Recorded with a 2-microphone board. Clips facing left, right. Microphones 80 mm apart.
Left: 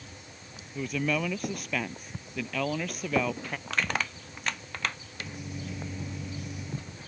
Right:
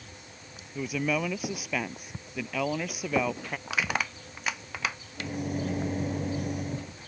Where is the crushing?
10° right (ahead or behind).